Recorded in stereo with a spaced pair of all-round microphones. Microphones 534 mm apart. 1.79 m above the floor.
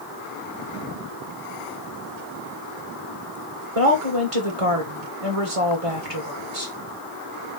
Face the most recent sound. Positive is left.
turn(degrees=-85)